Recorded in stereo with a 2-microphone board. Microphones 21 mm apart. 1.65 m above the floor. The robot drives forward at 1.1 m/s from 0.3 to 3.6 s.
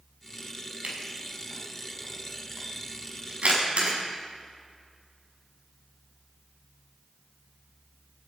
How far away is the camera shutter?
About 5.5 m.